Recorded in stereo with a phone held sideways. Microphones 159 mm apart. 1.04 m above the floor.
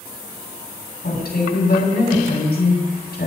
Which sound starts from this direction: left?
A woman speaking, at 1.0 s.